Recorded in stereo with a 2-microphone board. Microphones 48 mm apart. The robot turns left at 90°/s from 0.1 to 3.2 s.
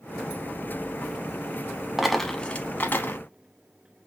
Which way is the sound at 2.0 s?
5° right (ahead or behind).